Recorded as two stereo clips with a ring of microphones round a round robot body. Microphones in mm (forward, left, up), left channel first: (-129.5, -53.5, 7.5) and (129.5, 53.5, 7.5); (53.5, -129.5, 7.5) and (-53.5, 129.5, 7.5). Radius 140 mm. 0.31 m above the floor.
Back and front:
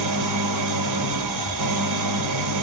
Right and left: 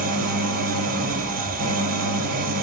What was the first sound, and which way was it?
An engine running, 50° left.